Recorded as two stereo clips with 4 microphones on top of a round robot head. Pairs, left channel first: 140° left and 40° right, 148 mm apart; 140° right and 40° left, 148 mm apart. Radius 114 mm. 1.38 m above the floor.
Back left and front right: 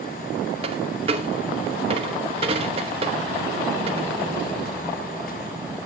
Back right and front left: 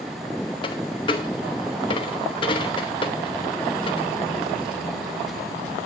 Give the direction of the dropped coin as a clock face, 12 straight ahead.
3 o'clock.